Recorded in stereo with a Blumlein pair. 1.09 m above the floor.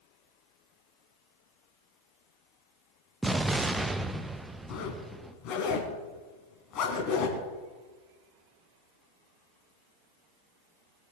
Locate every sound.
3.2 s an explosion: 10° right, 0.8 m
4.7 s a zipper: 35° left, 3.5 m